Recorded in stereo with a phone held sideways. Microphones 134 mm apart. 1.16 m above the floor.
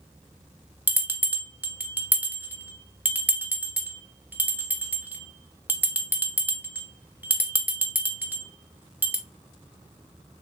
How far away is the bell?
About 0.7 m.